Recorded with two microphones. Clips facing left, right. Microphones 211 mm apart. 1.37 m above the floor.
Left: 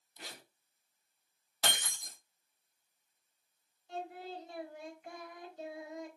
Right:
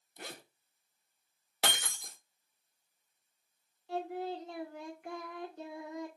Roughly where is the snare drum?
I don't hear a snare drum.